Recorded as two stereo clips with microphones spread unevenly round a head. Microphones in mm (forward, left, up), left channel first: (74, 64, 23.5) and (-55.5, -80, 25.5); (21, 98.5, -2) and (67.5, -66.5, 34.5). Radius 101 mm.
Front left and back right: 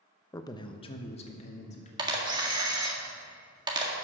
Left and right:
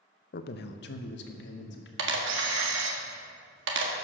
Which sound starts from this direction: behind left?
A man speaking, at 0.3 s.